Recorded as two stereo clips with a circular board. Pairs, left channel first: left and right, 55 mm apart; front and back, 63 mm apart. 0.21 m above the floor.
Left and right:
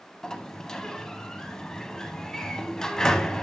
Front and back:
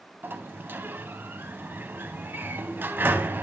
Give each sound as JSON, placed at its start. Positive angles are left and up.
{"t": 0.2, "sound": "a sliding door", "azimuth_deg": 160, "distance_m": 0.9}